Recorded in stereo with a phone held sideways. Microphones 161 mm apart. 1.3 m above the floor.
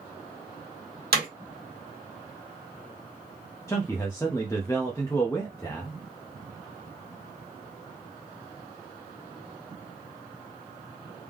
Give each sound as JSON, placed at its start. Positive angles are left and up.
{"t": 1.1, "sound": "hammering", "side_deg": -80, "distance_m": 1.8}
{"t": 3.7, "sound": "a man speaking", "side_deg": 15, "distance_m": 0.8}